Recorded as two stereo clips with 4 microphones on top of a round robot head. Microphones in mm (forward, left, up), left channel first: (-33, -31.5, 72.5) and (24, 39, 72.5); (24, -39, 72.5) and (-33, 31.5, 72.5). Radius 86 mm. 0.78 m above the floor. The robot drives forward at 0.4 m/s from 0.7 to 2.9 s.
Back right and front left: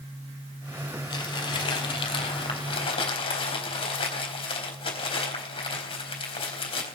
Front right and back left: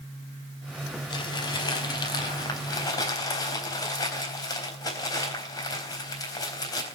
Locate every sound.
1.1 s crumpling: 90° right, 3.5 m; by 7.0 s 100° right, 3.5 m